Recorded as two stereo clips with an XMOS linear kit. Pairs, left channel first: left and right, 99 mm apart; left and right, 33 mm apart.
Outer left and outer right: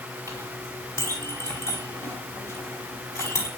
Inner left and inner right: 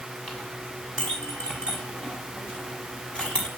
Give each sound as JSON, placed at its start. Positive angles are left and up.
{"t": 0.3, "sound": "a clink", "side_deg": 25, "distance_m": 5.5}